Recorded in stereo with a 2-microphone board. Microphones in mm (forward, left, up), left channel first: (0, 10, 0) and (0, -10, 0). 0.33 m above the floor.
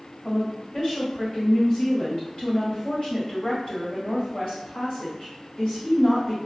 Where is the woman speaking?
45° left (ahead or behind), 1.3 m.